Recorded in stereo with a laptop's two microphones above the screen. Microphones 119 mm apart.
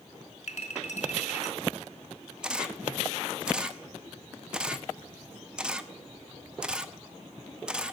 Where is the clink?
60° left (ahead or behind), 0.9 m.